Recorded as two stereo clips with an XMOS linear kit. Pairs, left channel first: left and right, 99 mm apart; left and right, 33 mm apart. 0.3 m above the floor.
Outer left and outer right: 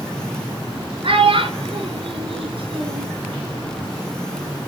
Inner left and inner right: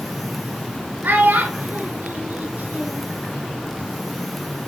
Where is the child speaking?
70° right (ahead or behind), 1.7 m.